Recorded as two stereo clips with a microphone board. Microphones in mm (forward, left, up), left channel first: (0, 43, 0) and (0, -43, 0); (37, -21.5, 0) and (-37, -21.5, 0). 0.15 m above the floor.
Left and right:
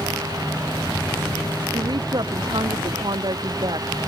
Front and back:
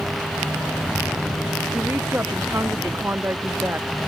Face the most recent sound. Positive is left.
turn(degrees=-120)